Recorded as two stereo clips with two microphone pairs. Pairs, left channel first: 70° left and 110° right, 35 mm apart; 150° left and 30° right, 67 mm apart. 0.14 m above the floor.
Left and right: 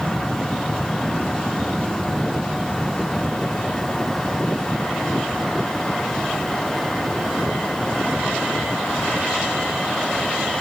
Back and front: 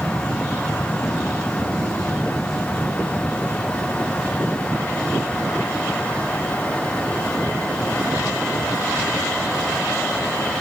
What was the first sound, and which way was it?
Only background noise.